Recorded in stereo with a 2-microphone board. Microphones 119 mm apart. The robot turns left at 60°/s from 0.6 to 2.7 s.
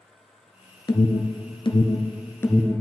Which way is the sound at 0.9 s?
35° left (ahead or behind).